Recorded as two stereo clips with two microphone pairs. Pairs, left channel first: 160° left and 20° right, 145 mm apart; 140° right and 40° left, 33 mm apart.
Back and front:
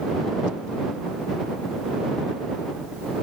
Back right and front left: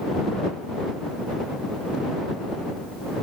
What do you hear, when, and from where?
Only background noise.